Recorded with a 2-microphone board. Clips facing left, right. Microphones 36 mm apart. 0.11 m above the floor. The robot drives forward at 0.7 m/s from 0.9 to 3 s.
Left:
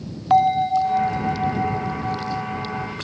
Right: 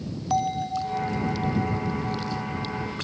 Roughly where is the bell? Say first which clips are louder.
Left 9 dB; left.